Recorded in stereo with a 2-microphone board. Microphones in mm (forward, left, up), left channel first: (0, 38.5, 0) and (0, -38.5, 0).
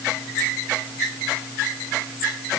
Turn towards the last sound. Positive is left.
No sound to turn to.